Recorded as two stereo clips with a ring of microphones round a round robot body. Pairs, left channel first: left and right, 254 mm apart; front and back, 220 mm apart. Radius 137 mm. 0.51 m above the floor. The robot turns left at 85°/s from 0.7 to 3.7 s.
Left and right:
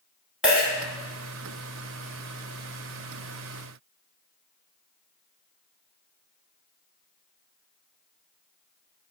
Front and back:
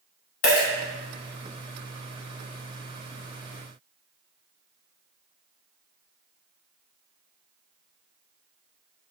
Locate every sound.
0.4 s a dropped coin: 5° right, 0.7 m